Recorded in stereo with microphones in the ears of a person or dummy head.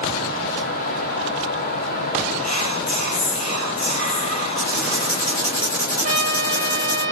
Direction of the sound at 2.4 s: 45° left (ahead or behind).